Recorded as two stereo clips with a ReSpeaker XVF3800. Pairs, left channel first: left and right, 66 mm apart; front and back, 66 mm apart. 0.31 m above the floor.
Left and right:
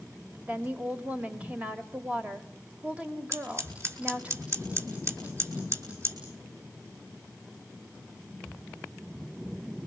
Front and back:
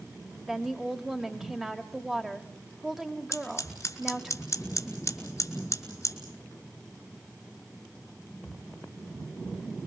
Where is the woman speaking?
110° right, 1.5 m.